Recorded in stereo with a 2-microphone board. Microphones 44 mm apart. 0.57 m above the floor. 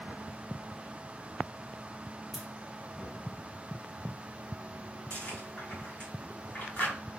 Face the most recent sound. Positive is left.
turn(degrees=35)  # may be behind; listen again after turning